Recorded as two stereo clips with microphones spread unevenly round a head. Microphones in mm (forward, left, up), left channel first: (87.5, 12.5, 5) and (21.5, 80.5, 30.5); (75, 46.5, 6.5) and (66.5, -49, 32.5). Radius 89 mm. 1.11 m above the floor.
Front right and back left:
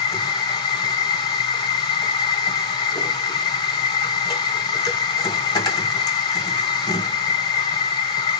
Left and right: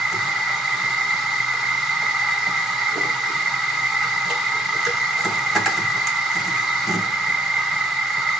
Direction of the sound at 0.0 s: 45° right.